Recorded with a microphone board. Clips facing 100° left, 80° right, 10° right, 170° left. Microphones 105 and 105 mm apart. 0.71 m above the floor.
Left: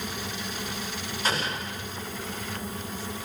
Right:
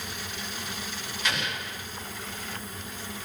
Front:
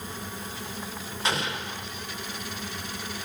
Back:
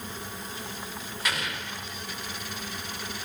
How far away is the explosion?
About 1.7 m.